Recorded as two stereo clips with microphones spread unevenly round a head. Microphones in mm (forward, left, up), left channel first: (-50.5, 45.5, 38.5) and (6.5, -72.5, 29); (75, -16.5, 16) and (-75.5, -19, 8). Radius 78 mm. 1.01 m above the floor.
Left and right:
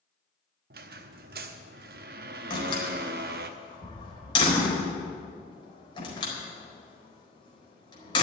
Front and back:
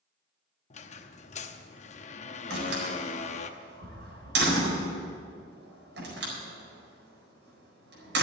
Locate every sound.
0.7 s a squeak: 40° right, 0.8 m
2.5 s a door slam: 170° left, 4.5 m